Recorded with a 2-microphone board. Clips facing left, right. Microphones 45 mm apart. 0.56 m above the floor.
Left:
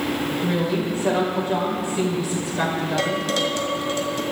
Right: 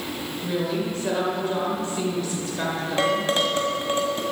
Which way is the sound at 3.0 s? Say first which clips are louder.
Right 4 dB; 30° right (ahead or behind).